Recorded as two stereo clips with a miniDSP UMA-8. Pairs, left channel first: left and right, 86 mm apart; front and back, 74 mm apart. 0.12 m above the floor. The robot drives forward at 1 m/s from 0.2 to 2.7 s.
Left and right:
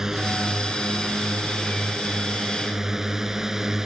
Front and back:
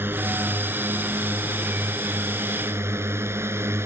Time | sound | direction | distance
0.0 | a drone | 170° right | ?